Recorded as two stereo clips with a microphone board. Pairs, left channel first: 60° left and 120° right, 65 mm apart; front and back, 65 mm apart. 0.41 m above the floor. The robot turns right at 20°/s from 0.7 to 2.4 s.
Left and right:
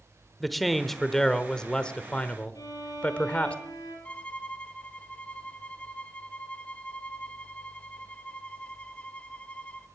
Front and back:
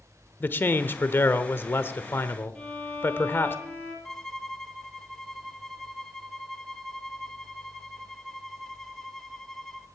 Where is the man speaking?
25° right, 0.9 m; by 3.5 s 10° left, 0.9 m.